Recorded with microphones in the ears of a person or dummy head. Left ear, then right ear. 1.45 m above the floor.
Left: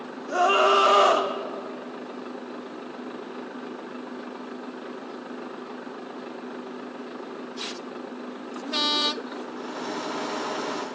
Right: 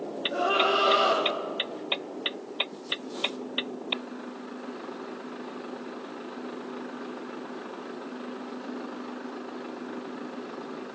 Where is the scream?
70° left (ahead or behind), 3 m; by 1.3 s 60° left (ahead or behind), 3 m.